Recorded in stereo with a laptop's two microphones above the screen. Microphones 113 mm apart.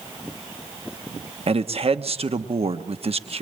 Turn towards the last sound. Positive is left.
turn(degrees=-60)  # may be behind; listen again after turning